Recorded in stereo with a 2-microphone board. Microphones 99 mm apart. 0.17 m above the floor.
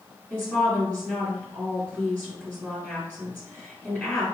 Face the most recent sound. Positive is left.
turn(degrees=10)  # may be behind; listen again after turning